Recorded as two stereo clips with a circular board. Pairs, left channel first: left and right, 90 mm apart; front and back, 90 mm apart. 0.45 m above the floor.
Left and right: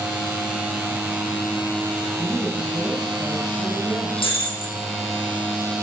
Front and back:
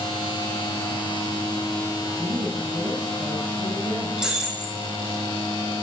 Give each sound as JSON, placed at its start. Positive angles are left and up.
{"t": 2.2, "sound": "a woman speaking", "azimuth_deg": 160, "distance_m": 4.0}
{"t": 4.2, "sound": "breaking glass", "azimuth_deg": 100, "distance_m": 3.5}